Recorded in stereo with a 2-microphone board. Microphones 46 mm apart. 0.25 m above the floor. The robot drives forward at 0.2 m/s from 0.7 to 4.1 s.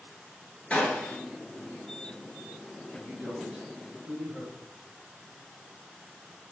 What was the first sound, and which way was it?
A gunshot, 30° left (ahead or behind).